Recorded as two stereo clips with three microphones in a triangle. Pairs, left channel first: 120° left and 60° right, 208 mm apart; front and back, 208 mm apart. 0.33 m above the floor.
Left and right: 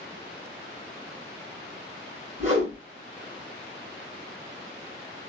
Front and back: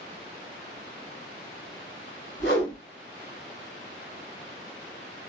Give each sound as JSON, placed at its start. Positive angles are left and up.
{"t": 2.4, "sound": "a whoosh", "azimuth_deg": -10, "distance_m": 2.5}